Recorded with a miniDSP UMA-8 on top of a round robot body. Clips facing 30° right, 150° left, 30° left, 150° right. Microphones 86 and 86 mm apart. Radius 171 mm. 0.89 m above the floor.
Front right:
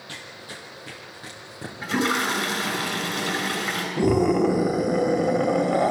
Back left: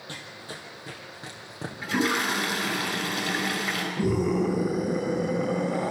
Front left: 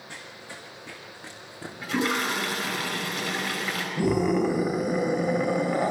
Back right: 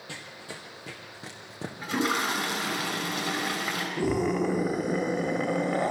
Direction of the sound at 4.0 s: 60° right.